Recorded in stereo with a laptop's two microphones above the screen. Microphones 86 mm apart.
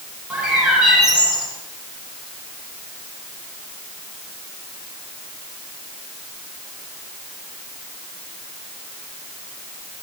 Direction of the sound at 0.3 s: 15° right (ahead or behind).